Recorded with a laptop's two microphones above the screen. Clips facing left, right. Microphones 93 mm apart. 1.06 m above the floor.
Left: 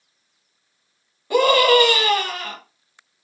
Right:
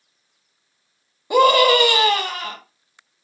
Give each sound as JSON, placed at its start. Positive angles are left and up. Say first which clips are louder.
{"t": 1.3, "sound": "a scream", "louder": "right 1 dB", "side_deg": -20, "distance_m": 1.1}